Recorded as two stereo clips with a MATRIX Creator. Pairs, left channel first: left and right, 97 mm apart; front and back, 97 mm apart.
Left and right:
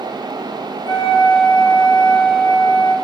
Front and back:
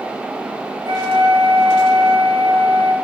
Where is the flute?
130° left, 6 m.